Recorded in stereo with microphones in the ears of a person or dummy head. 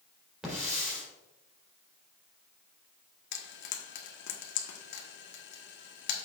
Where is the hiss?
5° right (ahead or behind), 4 m.